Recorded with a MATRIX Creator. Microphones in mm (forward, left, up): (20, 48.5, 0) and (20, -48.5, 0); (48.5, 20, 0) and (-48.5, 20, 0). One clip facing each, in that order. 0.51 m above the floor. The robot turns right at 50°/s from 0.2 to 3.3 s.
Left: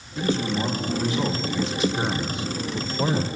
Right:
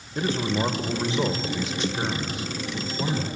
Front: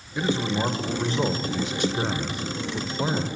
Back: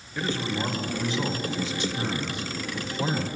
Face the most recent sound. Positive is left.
turn(degrees=75)